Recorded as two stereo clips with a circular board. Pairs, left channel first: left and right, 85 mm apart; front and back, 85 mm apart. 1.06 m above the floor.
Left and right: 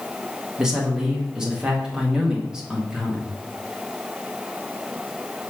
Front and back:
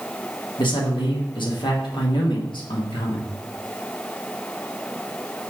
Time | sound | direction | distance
0.6 | a man speaking | 10° right | 1.7 m